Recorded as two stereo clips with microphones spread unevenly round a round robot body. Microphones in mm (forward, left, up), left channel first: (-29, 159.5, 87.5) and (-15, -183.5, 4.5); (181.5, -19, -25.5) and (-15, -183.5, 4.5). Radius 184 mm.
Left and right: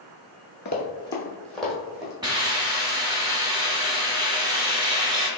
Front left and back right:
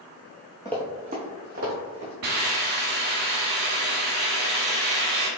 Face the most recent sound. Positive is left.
turn(degrees=-170)